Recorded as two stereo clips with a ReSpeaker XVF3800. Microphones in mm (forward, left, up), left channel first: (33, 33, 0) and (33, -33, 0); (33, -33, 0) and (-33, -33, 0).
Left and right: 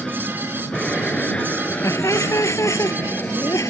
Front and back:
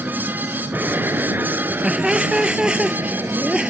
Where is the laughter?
105° left.